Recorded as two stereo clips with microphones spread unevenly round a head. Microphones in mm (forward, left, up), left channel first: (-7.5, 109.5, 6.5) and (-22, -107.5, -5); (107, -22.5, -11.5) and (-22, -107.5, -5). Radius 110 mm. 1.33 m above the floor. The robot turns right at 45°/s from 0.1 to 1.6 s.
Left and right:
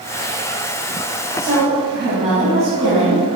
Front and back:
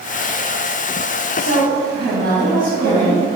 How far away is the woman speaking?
About 1.2 m.